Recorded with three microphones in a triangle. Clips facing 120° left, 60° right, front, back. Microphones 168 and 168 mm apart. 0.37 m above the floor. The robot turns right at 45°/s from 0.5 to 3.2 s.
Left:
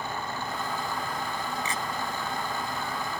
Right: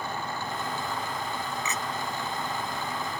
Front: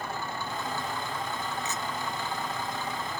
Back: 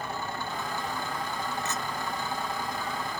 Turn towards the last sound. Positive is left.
turn(degrees=-115)